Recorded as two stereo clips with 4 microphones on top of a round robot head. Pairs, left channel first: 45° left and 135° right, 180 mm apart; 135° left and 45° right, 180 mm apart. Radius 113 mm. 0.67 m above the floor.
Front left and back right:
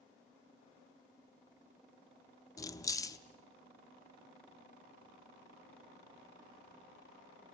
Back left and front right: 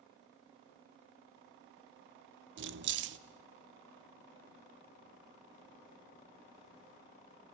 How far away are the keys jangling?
About 0.9 m.